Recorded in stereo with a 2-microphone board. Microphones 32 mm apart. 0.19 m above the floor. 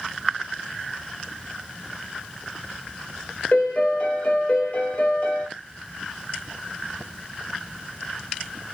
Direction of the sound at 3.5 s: 50° left (ahead or behind).